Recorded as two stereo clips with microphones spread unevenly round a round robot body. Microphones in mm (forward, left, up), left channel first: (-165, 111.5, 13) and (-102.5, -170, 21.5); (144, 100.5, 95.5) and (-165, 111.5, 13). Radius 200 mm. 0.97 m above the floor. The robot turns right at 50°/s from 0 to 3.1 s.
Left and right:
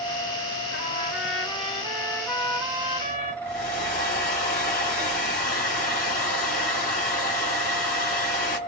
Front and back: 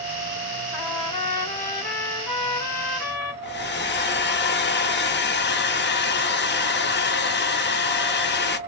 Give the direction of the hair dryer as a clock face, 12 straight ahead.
10 o'clock.